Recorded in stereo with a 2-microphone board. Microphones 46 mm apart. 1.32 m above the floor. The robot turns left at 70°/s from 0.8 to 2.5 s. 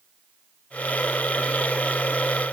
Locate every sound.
Only background noise.